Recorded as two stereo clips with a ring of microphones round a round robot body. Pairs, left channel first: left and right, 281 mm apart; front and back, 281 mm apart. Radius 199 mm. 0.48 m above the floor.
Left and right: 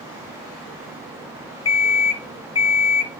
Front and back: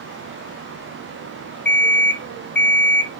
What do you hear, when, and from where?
1.6 s an alarm clock: 55° left, 1.5 m